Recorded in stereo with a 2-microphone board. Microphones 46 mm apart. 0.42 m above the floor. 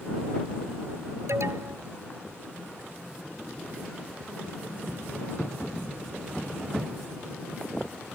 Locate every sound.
1.3 s an alarm: 70° right (ahead or behind)